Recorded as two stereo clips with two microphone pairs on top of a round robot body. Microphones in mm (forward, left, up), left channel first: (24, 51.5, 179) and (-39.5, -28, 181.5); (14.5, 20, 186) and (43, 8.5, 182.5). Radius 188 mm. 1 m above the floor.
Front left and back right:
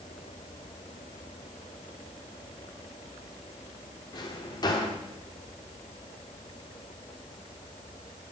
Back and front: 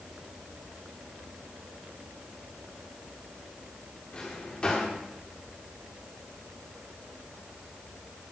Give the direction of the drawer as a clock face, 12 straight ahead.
9 o'clock.